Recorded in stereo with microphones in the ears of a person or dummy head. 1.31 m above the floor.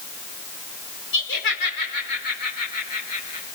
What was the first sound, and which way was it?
Laughter, 65° left (ahead or behind).